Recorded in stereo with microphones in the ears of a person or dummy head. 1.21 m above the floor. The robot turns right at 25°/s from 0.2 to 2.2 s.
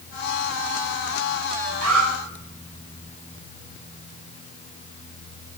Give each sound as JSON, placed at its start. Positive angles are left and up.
{"t": 1.8, "sound": "an alarm", "side_deg": -85, "distance_m": 5.0}